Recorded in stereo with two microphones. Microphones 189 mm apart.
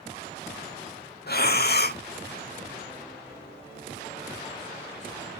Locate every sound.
1.3 s breathing: 55° left (ahead or behind), 0.5 m